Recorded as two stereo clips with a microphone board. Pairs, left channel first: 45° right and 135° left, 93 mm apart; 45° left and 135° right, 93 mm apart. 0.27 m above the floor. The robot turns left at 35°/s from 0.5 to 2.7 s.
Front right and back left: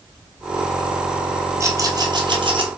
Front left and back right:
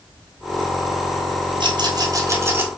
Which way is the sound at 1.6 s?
165° right.